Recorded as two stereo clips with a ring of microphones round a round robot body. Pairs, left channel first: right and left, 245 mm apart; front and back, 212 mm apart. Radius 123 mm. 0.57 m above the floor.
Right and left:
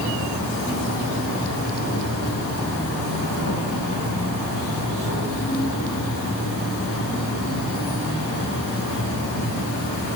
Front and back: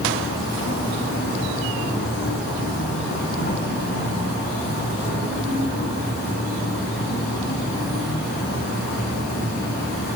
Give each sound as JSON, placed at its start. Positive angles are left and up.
{"t": 0.0, "sound": "an insect", "azimuth_deg": -55, "distance_m": 1.5}